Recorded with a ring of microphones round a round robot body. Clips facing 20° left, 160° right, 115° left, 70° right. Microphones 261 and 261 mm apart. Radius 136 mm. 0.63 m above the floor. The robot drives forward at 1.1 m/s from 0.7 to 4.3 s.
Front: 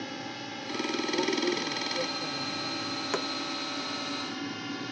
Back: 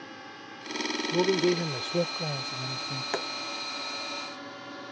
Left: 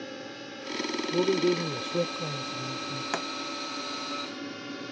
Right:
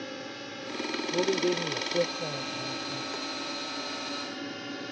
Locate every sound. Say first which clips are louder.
0.0 s a drone: front 7 dB, even; 20° left; by 4.9 s 30° left
1.1 s a man speaking: back 6 dB, left 3 dB; straight behind
3.1 s a pop: front 1 dB, left 3 dB; 100° left